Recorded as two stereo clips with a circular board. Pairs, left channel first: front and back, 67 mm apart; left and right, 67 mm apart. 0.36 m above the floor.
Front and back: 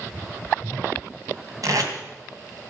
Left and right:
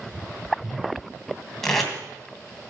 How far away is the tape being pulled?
About 2.5 m.